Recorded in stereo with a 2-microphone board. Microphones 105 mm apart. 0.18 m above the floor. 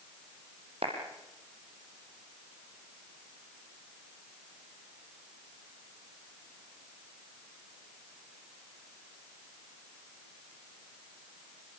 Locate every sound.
0.8 s a clap: 75° right (ahead or behind), 6 m